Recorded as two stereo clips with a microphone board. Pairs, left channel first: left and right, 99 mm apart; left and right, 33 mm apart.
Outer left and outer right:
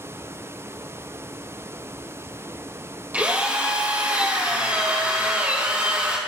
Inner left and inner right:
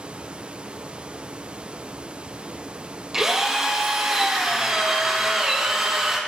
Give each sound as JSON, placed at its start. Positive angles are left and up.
{"t": 3.1, "sound": "a drill", "side_deg": -15, "distance_m": 3.5}